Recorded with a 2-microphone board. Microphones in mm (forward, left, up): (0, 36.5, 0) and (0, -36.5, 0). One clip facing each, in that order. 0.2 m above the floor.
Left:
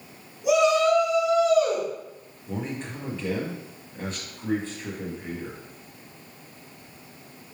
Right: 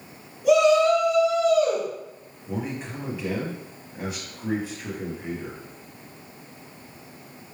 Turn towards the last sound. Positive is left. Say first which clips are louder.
# right 1 dB
turn(degrees=-10)  # may be behind; listen again after turning